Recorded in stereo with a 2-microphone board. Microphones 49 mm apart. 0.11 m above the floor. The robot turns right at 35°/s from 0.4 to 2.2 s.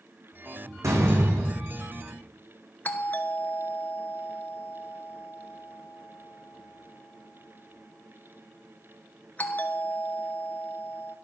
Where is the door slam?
85° right, 5 m; by 2.1 s 40° right, 5 m.